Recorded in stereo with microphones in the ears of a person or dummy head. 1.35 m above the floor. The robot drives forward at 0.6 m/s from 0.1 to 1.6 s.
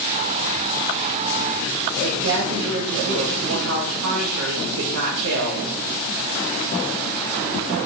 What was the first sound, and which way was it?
A woman speaking, 75° right (ahead or behind).